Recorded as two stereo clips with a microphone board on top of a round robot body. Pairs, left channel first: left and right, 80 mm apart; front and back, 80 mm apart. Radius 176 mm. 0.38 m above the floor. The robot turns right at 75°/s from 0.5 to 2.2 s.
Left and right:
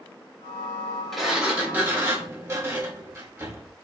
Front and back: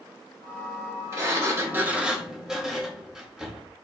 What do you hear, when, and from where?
1.1 s a sliding door: 175° left, 1.0 m; by 3.7 s 105° right, 1.0 m